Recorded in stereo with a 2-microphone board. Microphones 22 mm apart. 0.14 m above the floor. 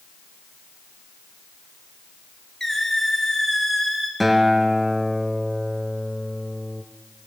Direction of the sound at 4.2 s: 5° right (ahead or behind).